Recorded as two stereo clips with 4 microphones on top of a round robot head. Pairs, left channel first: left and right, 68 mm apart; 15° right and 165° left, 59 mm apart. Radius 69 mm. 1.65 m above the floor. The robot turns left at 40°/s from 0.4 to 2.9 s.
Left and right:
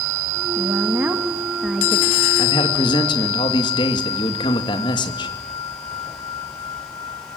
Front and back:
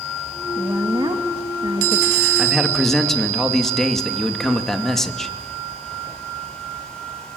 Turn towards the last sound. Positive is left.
turn(degrees=70)